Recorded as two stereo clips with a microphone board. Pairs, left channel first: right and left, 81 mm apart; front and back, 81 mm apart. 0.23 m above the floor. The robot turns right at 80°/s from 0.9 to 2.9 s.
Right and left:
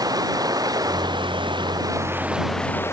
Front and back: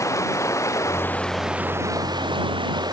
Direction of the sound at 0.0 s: 50° left.